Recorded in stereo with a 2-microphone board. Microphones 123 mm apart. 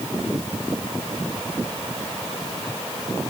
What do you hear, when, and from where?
Only background noise.